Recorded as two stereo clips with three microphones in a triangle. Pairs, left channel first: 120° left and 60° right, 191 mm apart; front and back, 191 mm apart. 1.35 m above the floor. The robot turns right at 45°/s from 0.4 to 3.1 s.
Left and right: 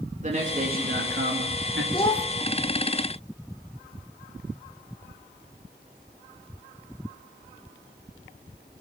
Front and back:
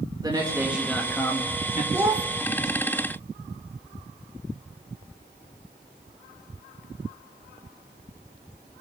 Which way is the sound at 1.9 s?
120° left.